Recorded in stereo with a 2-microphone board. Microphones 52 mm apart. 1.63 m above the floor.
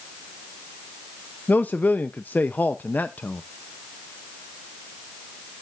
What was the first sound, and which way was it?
A man speaking, 35° left (ahead or behind).